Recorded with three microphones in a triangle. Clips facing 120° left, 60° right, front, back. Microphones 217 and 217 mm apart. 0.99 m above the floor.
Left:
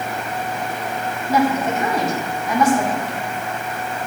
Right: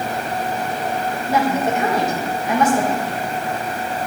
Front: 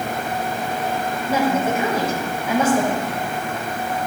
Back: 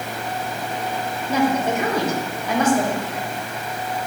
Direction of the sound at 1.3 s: 80° right.